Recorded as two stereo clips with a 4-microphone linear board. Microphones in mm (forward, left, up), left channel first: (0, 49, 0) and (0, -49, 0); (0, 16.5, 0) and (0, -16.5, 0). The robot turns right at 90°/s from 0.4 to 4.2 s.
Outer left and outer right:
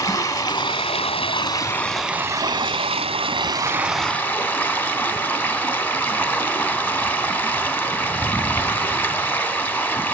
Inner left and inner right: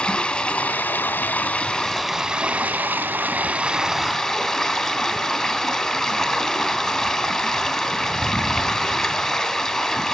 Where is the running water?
35° left, 2 m; by 10.2 s 20° left, 2 m.